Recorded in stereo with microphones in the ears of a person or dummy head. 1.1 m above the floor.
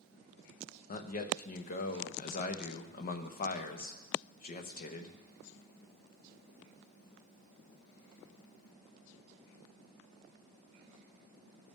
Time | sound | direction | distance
0.9 | a man speaking | 45° left (ahead or behind) | 0.7 m